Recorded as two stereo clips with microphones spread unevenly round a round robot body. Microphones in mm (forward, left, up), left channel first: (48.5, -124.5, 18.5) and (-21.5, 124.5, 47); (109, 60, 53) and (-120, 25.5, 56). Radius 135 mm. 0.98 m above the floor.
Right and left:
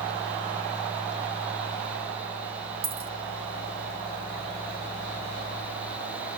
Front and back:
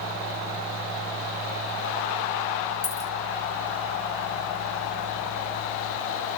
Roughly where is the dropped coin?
Ahead left.